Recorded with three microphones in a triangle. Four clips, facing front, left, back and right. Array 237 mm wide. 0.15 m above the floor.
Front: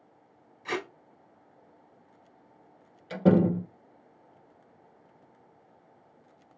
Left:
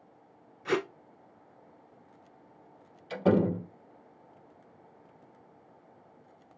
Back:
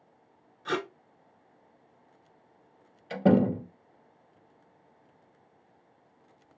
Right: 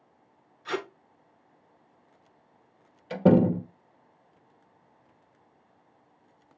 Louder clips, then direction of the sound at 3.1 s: Right 5 dB, even; 90° right.